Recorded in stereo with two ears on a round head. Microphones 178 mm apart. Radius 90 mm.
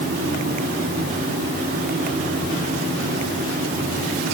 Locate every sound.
Only background noise.